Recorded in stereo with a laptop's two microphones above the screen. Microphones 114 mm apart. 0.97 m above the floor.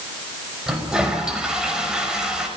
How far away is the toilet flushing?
About 5.5 m.